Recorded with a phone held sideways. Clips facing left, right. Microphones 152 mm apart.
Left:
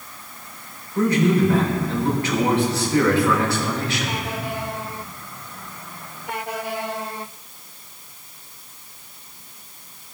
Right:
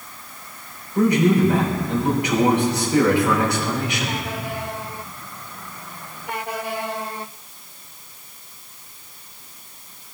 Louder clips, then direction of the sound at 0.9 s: Right 1 dB; 15° right (ahead or behind).